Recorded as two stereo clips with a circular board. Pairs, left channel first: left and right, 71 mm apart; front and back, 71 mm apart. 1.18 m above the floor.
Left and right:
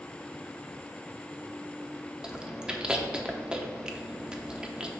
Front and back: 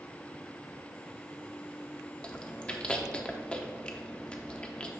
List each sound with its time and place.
2.2 s chewing: 40° right, 0.7 m